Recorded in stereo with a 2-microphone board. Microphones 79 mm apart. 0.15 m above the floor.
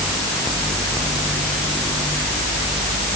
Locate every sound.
Only background noise.